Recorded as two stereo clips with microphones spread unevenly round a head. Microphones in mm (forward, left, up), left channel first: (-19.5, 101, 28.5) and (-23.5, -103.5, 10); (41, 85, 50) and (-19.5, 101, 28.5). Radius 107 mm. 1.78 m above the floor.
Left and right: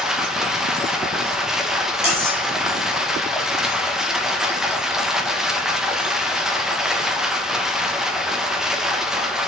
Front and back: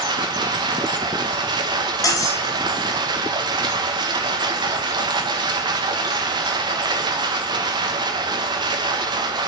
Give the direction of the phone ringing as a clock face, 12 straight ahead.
I don't hear a phone ringing.